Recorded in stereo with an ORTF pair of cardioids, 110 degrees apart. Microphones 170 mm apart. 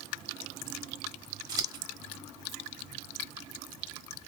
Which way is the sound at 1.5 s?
25° right.